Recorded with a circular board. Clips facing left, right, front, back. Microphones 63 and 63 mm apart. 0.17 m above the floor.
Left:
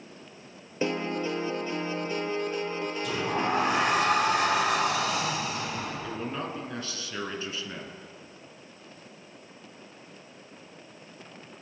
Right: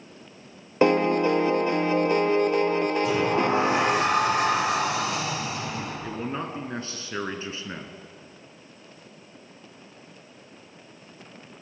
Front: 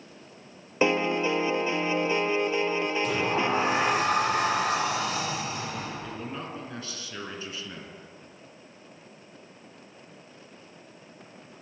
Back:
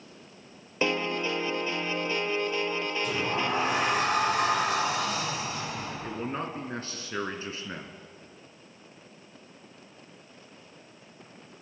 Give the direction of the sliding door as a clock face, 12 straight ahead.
1 o'clock.